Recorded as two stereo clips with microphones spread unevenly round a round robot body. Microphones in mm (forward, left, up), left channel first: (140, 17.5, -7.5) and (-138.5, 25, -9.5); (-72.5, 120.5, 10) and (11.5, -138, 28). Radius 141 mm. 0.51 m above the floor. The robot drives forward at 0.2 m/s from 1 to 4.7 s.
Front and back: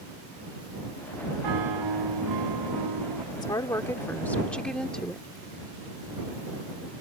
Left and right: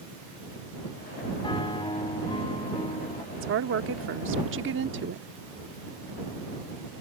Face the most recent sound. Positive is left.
turn(degrees=-90)